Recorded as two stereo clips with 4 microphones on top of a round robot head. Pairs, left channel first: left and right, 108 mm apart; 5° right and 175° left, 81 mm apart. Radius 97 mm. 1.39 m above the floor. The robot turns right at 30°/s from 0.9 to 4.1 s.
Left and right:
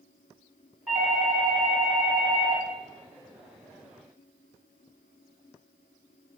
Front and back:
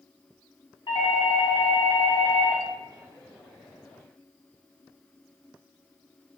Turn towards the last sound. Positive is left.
turn(degrees=90)